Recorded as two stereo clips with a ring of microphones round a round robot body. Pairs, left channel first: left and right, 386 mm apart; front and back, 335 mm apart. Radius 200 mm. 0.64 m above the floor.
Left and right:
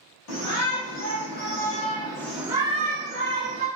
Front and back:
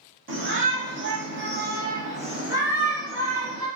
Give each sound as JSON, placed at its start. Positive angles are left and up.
{"t": 0.3, "sound": "a shout", "azimuth_deg": 130, "distance_m": 1.4}